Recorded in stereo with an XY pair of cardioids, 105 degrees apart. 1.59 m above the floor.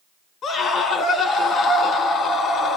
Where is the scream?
60° left, 2.5 m.